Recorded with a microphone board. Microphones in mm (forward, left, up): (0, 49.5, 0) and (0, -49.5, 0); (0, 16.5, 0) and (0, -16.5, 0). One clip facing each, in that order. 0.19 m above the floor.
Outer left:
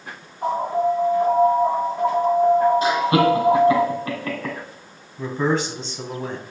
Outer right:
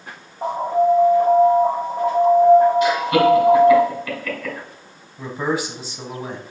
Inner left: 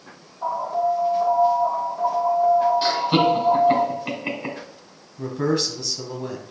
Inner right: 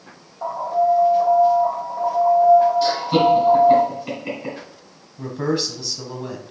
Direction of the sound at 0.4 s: 60° right (ahead or behind).